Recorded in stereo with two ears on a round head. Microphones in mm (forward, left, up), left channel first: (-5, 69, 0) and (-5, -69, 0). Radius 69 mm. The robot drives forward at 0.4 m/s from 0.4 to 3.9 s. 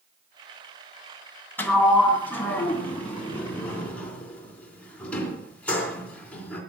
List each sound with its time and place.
1.6 s a sliding door: 15° left (ahead or behind), 2 m; by 6.6 s 10° left (ahead or behind), 3 m